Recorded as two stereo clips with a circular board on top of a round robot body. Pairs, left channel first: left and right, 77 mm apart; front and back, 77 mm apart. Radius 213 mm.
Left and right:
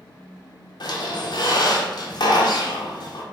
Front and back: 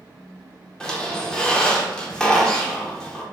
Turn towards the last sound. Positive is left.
turn(degrees=80)